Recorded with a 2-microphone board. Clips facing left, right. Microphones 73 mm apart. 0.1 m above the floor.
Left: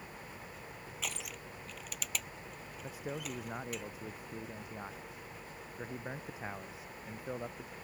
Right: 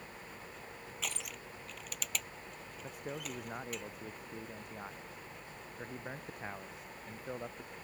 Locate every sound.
1.0 s crushing: centre (ahead or behind)
2.8 s a man speaking: 5° left (ahead or behind)